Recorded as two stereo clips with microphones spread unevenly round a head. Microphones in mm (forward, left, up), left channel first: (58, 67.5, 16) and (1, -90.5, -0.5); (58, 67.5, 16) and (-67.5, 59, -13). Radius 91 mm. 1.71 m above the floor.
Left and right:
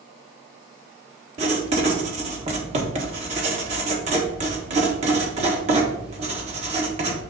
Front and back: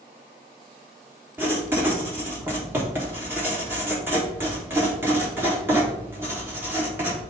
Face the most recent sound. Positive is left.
turn(degrees=-90)